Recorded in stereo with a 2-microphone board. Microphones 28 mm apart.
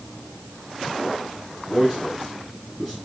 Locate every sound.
1.6 s a man speaking: 15° left (ahead or behind), 4 m